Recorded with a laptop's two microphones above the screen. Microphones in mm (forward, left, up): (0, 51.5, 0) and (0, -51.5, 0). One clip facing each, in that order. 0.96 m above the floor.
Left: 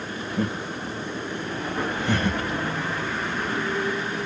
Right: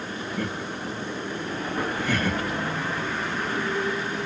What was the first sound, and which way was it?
Laughter, 25° left (ahead or behind).